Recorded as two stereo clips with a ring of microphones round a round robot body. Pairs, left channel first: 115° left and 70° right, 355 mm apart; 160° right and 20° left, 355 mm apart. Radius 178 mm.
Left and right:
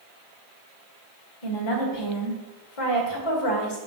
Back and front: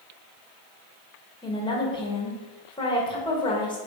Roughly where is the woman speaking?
Behind left.